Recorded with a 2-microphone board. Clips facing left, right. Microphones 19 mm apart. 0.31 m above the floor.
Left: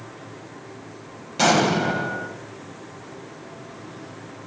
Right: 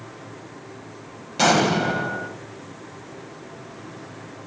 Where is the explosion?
Centre (ahead or behind), 1.3 m.